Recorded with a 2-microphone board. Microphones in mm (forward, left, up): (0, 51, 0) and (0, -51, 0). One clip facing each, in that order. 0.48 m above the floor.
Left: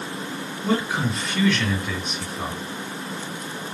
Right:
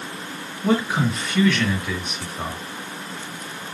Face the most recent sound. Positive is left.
turn(degrees=-65)  # may be behind; listen again after turning